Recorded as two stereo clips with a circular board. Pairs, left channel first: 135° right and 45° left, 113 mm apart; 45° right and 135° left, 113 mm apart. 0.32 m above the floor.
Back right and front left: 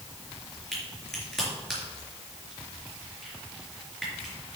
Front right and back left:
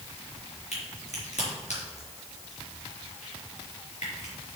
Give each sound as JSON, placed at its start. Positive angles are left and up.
{"t": 0.7, "sound": "a crack", "azimuth_deg": -50, "distance_m": 3.5}